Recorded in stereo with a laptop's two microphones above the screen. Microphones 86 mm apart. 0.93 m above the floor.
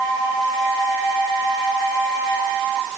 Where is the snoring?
No snoring in this recording.